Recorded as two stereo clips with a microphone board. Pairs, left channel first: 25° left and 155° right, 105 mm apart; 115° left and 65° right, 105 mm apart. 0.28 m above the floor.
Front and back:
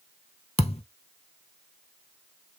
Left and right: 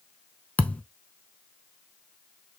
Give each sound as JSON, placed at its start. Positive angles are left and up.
{"t": 0.6, "sound": "a thud", "azimuth_deg": 35, "distance_m": 0.5}